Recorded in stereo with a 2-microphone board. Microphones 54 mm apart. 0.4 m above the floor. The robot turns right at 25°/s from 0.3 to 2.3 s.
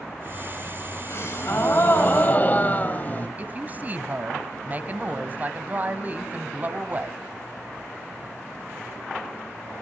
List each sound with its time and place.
1.1 s a gasp: 55° left (ahead or behind), 2.5 m; by 3.3 s 35° left (ahead or behind), 2.5 m
3.4 s a woman speaking: 35° right (ahead or behind), 2 m